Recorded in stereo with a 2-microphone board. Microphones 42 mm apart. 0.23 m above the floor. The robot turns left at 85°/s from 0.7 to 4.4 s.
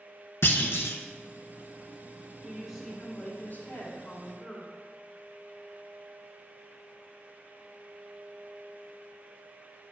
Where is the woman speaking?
150° right, 2.5 m; by 4.7 s 45° left, 2.5 m.